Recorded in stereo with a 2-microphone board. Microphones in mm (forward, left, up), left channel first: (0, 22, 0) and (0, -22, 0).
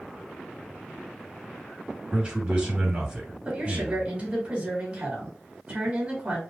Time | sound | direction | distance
2.1 | a man speaking | 25° right (ahead or behind) | 3 m
3.5 | a woman speaking | 30° right (ahead or behind) | 3 m